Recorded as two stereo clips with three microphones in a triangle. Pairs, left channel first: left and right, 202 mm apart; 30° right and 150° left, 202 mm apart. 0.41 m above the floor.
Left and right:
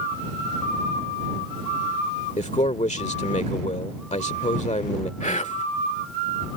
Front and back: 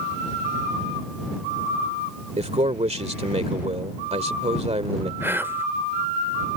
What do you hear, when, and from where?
2.4 s a man speaking: 115° left
5.2 s whispering: 80° left